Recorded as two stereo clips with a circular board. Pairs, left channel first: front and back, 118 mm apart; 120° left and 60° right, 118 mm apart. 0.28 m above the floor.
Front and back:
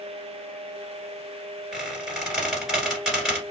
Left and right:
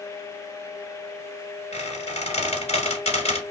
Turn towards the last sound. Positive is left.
turn(degrees=95)